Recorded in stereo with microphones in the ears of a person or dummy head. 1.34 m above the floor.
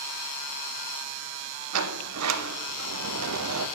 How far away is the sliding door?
About 0.6 m.